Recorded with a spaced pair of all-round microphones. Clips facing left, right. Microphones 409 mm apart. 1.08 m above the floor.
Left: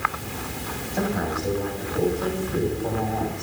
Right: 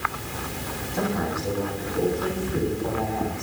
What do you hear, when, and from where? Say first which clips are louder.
0.9 s a man speaking: left 1 dB; 15° right (ahead or behind), 7.5 m; by 3.4 s 25° right (ahead or behind), 6 m